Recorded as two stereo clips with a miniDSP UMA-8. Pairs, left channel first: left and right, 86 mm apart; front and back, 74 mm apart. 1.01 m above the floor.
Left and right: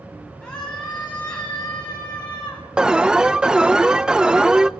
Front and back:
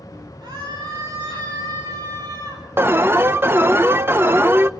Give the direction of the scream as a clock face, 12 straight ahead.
6 o'clock.